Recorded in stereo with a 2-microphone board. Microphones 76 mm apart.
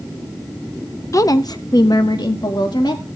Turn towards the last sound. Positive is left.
turn(degrees=70)  # may be behind; listen again after turning